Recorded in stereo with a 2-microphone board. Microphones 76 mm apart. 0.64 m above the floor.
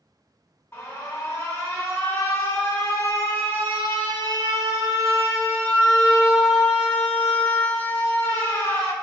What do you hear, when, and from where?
0.7 s an alarm: 30° left (ahead or behind), 0.7 m